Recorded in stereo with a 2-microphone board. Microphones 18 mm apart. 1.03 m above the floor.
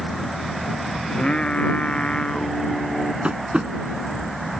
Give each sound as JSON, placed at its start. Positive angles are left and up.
{"t": 1.1, "sound": "singing", "side_deg": 60}
{"t": 3.2, "sound": "tapping", "side_deg": -60}